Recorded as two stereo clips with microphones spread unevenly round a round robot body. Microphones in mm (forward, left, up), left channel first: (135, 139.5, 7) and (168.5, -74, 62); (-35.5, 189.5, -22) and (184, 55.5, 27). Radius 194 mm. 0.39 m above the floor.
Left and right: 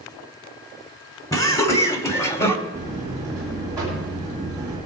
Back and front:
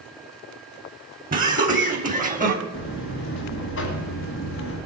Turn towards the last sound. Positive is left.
turn(degrees=-165)